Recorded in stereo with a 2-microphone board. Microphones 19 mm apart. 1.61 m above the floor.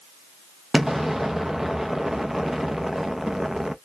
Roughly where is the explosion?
Centre.